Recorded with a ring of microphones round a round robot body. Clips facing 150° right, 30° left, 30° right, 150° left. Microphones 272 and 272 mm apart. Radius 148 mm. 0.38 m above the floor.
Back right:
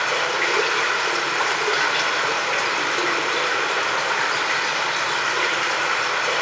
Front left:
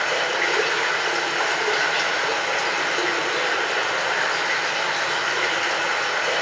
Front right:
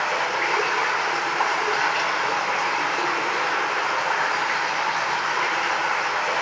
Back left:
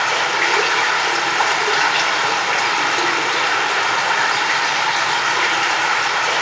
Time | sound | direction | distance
0.0 | running water | 130° left | 0.7 m